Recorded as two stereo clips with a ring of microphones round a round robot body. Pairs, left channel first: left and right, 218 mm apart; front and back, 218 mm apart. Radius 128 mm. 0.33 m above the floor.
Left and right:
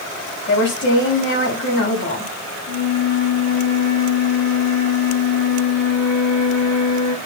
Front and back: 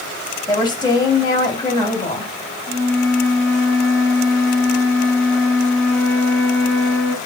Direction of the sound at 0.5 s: 70° left.